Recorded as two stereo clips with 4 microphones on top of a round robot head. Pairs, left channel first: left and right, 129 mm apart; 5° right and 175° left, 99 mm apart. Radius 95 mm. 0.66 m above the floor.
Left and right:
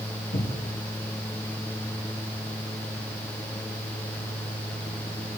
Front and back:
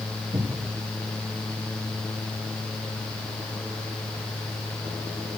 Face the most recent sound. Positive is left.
turn(degrees=125)